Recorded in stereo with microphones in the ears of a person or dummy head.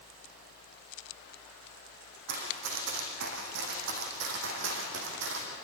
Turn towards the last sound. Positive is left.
turn(degrees=-70)  # may be behind; listen again after turning